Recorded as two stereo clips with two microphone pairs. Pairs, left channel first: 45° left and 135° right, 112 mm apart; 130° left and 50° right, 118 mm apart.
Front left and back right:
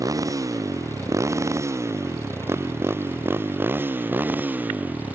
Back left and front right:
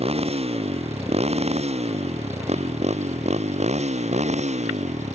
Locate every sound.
0.0 s a motorcycle: 80° right; by 5.2 s 60° right